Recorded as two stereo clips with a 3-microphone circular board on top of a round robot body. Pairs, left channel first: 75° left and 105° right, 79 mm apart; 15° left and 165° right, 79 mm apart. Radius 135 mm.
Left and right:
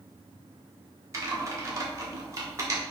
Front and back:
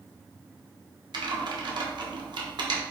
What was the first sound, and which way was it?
Typing on a keyboard, 155° right.